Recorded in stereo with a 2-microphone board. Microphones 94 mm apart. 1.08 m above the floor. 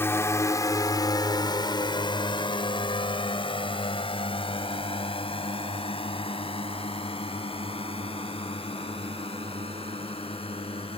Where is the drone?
25° left (ahead or behind); by 11.0 s 90° left.